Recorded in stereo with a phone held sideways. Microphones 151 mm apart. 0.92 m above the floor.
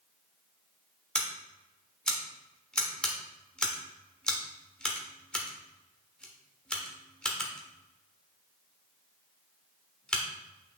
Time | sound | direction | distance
1.1 | scissors | 5° left (ahead or behind) | 1.4 m